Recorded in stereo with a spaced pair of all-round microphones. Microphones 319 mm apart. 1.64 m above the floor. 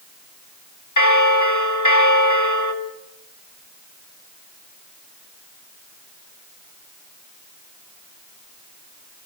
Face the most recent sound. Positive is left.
turn(degrees=65)  # may be behind; listen again after turning